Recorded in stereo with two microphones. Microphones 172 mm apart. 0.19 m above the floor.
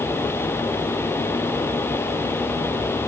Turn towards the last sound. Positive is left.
No sound to turn to.